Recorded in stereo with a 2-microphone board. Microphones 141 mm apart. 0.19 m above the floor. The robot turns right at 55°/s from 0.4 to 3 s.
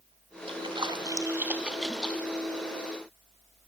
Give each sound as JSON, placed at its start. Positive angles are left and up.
{"t": 0.5, "sound": "a splash", "side_deg": -40, "distance_m": 1.9}